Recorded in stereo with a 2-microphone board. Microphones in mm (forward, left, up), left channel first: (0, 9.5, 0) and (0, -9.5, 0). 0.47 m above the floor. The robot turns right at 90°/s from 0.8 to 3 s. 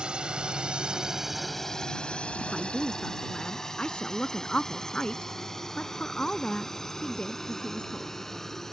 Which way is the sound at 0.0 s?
55° right (ahead or behind).